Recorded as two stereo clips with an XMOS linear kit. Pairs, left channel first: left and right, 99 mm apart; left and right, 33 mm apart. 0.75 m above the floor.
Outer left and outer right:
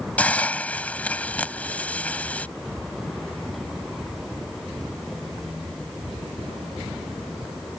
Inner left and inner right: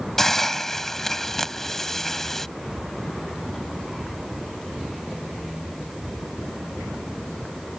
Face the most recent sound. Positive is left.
turn(degrees=15)  # may be behind; listen again after turning